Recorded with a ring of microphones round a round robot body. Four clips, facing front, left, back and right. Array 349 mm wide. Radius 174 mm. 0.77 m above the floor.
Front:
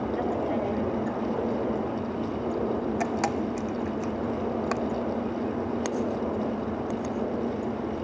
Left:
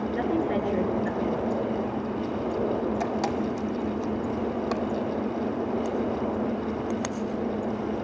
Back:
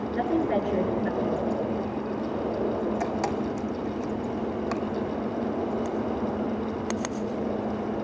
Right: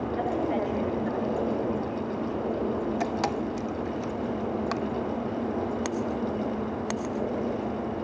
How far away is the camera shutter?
About 0.9 m.